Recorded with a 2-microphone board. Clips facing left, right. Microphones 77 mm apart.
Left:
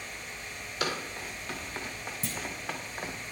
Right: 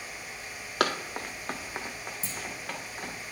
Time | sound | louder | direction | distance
0.8 | running footsteps | right 5 dB | 80° right | 1.2 m
2.2 | a clunk | left 2 dB | 65° left (ahead or behind) | 0.9 m